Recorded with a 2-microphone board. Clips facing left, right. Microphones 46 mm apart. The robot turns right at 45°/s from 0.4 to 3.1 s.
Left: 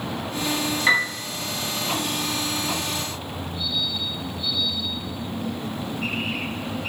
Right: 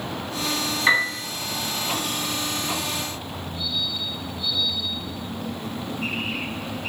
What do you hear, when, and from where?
0.9 s a piano: centre (ahead or behind), 1.3 m; by 1.2 s 5° right (ahead or behind), 1.3 m